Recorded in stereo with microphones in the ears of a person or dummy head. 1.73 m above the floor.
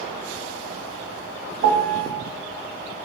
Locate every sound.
1.6 s a piano: 50° right (ahead or behind), 1.1 m